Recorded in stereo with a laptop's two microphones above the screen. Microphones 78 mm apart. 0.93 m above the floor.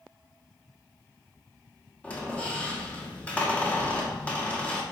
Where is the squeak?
20° left (ahead or behind), 1.3 m.